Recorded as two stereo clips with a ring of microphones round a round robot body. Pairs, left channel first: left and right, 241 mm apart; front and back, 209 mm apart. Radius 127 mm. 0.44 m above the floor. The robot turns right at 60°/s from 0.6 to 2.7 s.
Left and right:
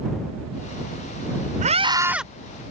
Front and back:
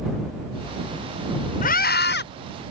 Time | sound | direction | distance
1.6 | a scream | 40° right | ?